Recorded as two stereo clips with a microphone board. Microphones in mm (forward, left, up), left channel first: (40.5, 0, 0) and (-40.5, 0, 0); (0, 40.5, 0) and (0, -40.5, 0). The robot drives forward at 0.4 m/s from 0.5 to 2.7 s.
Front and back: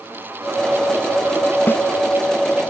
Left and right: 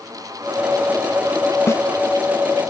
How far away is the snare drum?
About 0.6 m.